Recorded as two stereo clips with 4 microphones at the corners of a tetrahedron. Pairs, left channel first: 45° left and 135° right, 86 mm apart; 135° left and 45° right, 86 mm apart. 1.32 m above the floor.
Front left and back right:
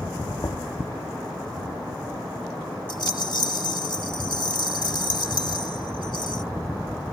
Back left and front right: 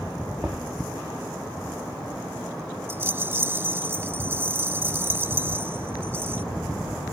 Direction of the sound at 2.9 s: 20° left.